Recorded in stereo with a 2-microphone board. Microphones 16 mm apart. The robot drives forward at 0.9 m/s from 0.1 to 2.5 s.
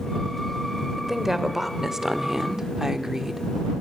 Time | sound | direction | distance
1.0 | a woman speaking | 15° right (ahead or behind) | 3 m